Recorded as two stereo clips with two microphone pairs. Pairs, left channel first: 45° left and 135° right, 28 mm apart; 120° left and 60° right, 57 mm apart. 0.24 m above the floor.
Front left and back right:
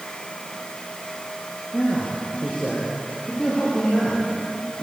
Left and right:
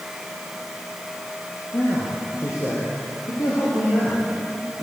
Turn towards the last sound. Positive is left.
turn(degrees=95)